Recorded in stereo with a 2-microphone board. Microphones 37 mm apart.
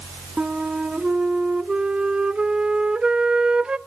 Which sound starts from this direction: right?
A flute, at 0.4 s.